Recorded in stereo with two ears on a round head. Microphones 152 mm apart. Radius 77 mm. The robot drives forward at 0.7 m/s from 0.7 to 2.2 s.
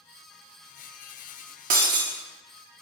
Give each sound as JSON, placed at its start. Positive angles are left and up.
{"t": 1.7, "sound": "breaking glass", "side_deg": -50, "distance_m": 0.6}